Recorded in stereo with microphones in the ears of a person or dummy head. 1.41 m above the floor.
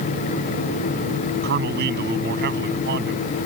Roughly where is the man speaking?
Right.